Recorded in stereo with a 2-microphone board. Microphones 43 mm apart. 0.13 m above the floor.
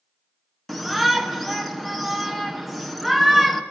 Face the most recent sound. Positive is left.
turn(degrees=5)  # may be behind; listen again after turning